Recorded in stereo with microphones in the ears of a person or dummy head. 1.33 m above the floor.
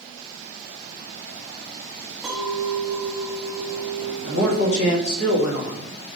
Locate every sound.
2.2 s a clink: 5° right (ahead or behind), 1.4 m
4.2 s a man speaking: 80° left, 1.6 m